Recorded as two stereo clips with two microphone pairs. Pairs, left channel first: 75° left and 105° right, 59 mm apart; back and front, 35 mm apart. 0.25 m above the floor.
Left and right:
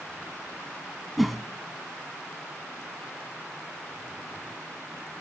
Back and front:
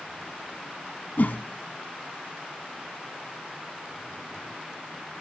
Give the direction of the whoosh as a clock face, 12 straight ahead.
6 o'clock.